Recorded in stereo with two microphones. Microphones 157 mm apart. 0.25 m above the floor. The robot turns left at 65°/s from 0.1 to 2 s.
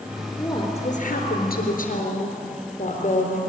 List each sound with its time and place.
0.3 s a woman speaking: 165° left, 3.5 m; by 3.4 s 55° left, 3.5 m